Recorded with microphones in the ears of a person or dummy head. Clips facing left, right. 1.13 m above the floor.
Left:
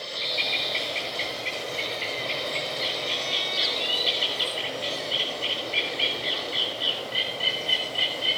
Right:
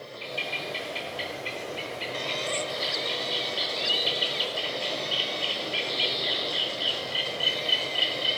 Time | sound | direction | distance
0.2 | a bird | 15° right (ahead or behind) | 1.9 m